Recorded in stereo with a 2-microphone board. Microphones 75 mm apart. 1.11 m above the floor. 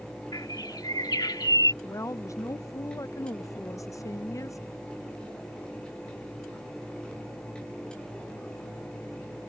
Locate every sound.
0.3 s a bird: 70° left (ahead or behind)
1.8 s a woman speaking: 45° left (ahead or behind)